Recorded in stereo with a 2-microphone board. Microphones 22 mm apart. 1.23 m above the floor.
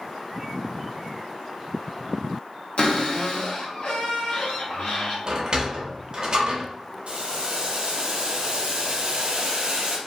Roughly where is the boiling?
Right.